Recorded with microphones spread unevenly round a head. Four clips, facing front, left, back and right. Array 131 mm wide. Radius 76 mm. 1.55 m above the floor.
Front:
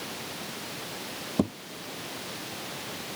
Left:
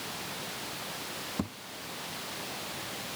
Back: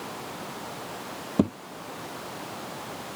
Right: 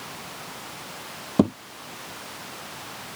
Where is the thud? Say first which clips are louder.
Right 17 dB, back 3 dB; 110° right.